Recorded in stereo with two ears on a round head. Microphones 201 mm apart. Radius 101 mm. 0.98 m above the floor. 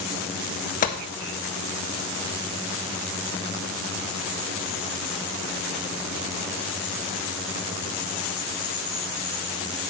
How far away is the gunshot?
About 1.3 m.